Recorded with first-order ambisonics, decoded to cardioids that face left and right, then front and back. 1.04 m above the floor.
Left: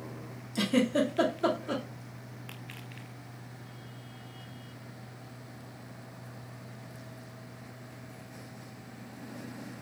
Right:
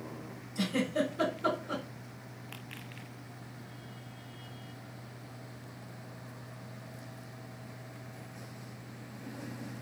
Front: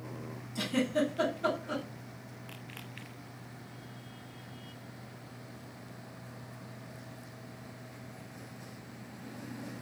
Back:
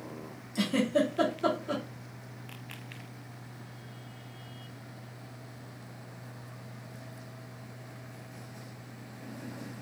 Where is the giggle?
110° left, 1.8 m.